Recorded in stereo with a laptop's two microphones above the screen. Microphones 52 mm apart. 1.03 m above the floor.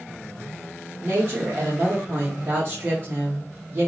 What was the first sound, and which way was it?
A woman speaking, 45° right (ahead or behind).